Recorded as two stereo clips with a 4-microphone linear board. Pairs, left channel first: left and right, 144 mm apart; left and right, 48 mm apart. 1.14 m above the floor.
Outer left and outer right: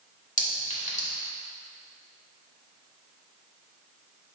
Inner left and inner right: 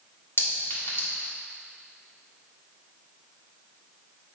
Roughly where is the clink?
Left.